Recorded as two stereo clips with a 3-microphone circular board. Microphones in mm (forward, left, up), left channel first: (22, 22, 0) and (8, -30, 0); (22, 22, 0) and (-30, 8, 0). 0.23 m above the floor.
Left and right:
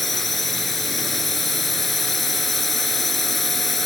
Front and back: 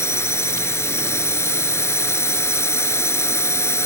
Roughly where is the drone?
Ahead.